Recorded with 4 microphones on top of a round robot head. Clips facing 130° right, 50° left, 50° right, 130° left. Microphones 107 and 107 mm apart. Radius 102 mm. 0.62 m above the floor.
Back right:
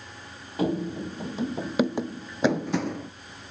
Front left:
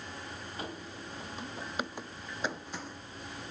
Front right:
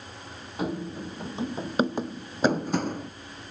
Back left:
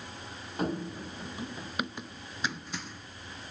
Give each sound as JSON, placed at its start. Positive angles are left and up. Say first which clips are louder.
{"t": 0.6, "sound": "running footsteps", "louder": "back right 18 dB, front right 2 dB", "azimuth_deg": -140}